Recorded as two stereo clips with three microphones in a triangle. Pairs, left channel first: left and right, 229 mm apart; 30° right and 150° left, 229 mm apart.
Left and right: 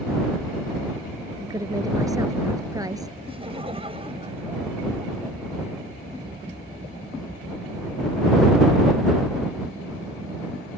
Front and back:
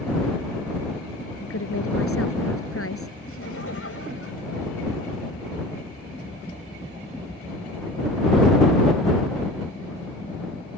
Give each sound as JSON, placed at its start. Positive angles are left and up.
{"t": 1.4, "sound": "a woman speaking", "azimuth_deg": -15}
{"t": 3.3, "sound": "laughter", "azimuth_deg": -25}